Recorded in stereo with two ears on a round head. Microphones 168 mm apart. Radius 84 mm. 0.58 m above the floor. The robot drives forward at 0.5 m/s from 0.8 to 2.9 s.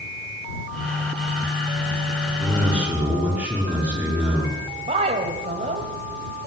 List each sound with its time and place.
2.4 s a man speaking: 10° right (ahead or behind), 6.5 m
4.8 s a woman speaking: 35° right (ahead or behind), 3 m